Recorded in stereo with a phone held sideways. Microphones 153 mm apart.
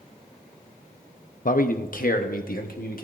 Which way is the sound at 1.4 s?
60° left (ahead or behind).